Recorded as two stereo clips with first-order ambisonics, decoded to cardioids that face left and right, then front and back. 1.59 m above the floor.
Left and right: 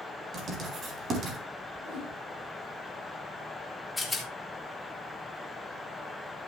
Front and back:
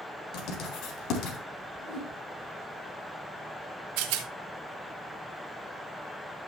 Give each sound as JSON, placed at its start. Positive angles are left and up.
{"t": 0.3, "sound": "writing", "azimuth_deg": -30, "distance_m": 3.0}
{"t": 1.8, "sound": "a whoosh", "azimuth_deg": -85, "distance_m": 9.5}
{"t": 4.0, "sound": "a rattle", "azimuth_deg": 175, "distance_m": 2.5}